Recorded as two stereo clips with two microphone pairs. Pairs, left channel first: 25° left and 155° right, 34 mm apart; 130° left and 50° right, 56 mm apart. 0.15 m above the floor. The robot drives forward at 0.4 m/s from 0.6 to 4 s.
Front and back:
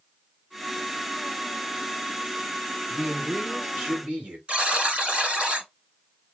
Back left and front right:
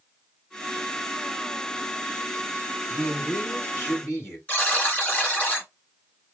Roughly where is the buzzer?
Behind.